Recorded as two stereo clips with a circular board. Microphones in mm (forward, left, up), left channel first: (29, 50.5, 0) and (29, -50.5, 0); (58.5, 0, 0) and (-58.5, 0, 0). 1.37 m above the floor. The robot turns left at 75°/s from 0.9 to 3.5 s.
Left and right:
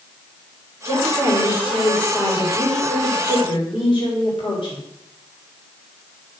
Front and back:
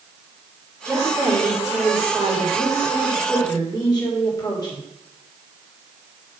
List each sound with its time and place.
0.8 s a woman speaking: 110° right, 3.5 m; by 4.8 s 55° left, 3.5 m